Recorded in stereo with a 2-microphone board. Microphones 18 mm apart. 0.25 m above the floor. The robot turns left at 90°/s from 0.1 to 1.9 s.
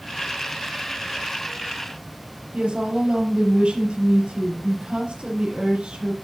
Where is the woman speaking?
65° right (ahead or behind), 6 m.